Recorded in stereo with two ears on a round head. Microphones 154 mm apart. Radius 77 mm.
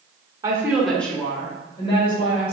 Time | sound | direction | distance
0.4 | a woman speaking | 20° right (ahead or behind) | 0.9 m